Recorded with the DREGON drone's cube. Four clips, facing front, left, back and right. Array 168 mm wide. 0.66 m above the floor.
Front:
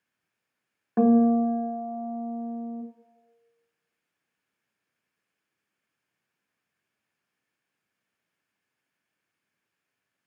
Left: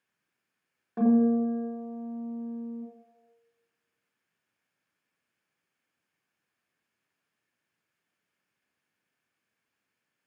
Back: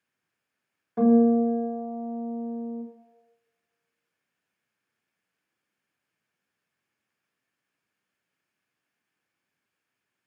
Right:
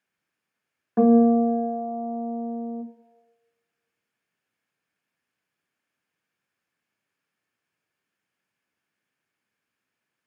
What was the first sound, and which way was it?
A guitar, 40° right.